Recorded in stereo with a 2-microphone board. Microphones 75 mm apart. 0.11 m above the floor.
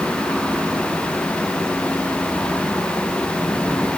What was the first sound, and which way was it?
Only background noise.